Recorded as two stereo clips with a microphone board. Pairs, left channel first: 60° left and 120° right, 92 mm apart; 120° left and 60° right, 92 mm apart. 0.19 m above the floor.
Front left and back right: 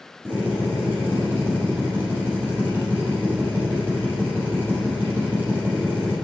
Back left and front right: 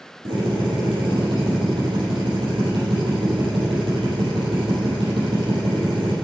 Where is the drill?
50° right, 6.5 m.